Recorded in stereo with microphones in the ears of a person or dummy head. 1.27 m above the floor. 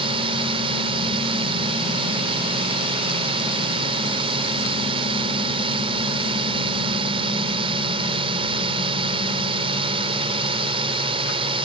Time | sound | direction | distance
0.0 | a drone | 30° right (ahead or behind) | ?